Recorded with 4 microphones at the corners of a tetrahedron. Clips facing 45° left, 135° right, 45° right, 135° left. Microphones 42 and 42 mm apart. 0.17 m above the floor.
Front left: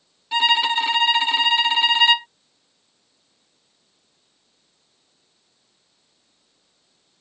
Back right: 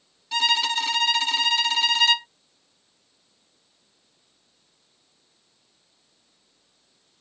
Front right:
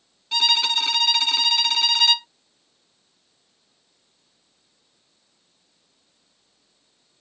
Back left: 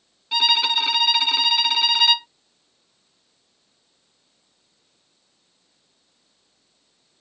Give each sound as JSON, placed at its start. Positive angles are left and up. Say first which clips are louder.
{"t": 0.3, "sound": "a violin", "louder": "front left 4 dB, back left 2 dB", "azimuth_deg": 70}